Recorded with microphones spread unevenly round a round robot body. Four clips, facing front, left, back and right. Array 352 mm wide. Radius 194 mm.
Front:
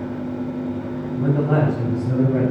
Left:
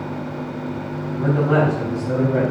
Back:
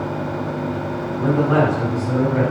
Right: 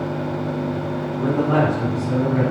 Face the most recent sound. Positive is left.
turn(degrees=30)